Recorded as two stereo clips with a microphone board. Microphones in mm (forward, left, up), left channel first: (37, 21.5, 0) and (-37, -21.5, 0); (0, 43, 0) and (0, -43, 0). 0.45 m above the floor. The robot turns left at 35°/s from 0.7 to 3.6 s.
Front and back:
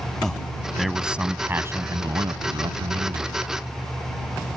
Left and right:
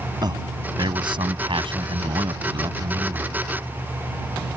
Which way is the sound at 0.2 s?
55° right.